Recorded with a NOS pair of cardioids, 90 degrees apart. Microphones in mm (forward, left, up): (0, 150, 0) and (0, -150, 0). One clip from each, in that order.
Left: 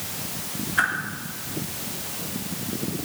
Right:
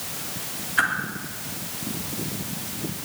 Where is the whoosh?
10° right, 3.5 m.